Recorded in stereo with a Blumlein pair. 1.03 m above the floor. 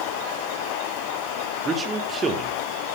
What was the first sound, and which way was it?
A man speaking, 20° right.